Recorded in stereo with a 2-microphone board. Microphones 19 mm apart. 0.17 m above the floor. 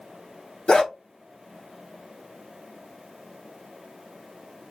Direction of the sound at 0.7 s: 60° left (ahead or behind).